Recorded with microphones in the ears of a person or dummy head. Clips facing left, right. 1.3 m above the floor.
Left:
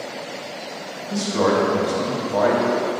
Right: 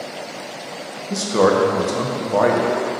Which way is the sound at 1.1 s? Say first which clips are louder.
Right 3 dB; 60° right (ahead or behind).